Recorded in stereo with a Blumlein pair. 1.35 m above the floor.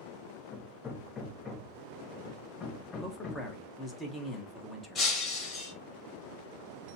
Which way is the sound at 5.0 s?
25° left.